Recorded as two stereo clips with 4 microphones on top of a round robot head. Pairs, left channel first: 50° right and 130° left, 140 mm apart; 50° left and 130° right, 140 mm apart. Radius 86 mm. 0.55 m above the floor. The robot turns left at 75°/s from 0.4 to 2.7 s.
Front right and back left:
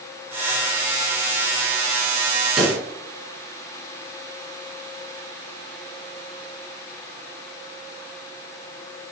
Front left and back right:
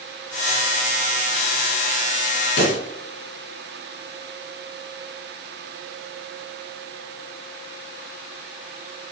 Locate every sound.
2.6 s a pop: 45° left, 3 m; by 2.8 s 35° left, 3 m